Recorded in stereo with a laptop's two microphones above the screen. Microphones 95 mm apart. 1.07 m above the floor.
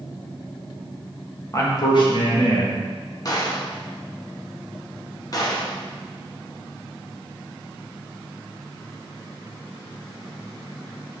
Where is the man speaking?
35° left (ahead or behind), 1.3 m; by 2.8 s 70° left (ahead or behind), 2.5 m.